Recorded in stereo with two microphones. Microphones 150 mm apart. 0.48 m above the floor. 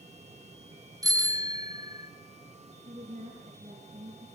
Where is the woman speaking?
45° right (ahead or behind), 6 m.